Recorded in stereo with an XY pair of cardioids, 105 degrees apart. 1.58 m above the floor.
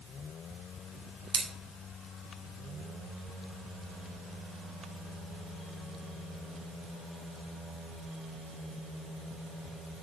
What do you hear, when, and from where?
1.3 s scissors: 45° right, 3.5 m